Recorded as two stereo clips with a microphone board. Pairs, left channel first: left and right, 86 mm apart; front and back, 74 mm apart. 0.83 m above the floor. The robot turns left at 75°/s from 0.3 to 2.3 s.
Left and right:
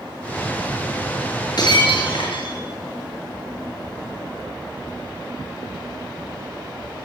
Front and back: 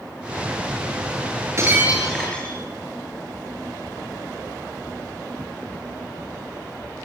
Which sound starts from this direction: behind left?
Breaking glass, at 1.6 s.